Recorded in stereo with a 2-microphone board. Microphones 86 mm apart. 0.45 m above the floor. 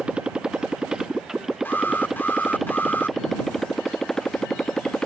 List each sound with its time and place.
0.0 s a motorcycle: 10° right (ahead or behind); by 5.1 s 10° left (ahead or behind)
1.6 s an alarm: 25° left (ahead or behind)